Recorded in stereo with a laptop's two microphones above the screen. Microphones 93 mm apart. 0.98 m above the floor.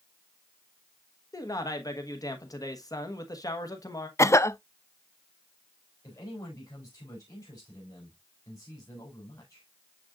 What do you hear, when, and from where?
1.3 s a man speaking: 40° left (ahead or behind), 1.1 m
4.2 s a cough: 30° left (ahead or behind), 0.7 m
6.0 s a man speaking: 40° left (ahead or behind), 3.5 m